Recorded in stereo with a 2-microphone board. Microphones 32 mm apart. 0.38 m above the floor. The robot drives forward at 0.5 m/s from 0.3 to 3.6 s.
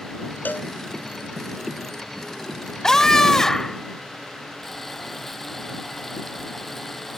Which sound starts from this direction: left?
A cowbell, at 0.5 s.